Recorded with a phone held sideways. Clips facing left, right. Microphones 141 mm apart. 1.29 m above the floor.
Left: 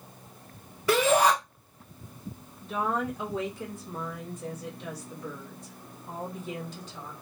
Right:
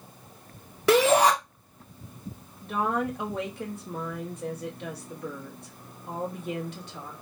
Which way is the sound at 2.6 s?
65° right (ahead or behind).